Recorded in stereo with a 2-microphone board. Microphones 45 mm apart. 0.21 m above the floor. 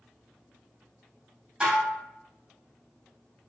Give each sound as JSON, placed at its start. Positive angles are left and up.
{"t": 1.6, "sound": "dishes clattering", "side_deg": -20, "distance_m": 0.7}